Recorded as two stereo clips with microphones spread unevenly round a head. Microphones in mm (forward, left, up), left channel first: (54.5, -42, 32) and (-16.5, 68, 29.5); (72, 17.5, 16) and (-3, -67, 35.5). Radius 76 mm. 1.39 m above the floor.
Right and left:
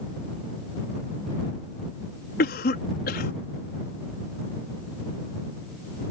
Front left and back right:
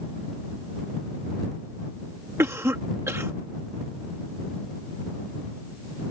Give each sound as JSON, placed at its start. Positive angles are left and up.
{"t": 2.4, "sound": "a cough", "azimuth_deg": -65}